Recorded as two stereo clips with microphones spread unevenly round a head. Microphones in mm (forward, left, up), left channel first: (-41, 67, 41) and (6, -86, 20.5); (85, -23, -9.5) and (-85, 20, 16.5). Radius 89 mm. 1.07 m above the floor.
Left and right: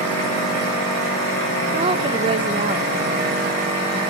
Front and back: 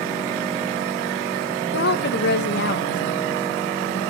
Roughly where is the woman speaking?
Ahead.